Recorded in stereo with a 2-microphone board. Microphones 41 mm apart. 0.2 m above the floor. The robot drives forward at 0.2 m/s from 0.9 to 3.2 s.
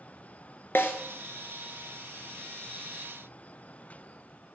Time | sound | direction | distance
0.8 | a snare drum | 60° left (ahead or behind) | 1.2 m